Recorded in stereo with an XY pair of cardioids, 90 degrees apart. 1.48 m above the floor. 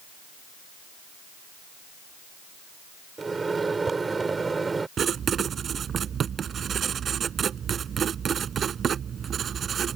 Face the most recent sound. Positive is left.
turn(degrees=-55)